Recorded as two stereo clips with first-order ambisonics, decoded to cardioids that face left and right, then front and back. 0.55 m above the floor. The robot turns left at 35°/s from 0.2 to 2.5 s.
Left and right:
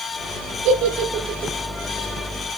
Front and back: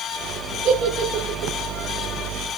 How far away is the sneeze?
No sneeze in this recording.